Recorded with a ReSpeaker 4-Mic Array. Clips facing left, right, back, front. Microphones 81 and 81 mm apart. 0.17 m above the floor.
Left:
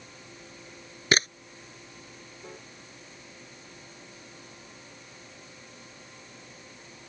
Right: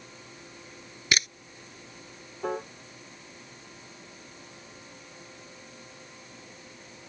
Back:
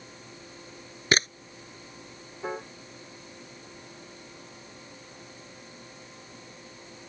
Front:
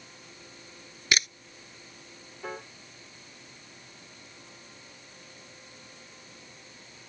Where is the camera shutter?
135° left.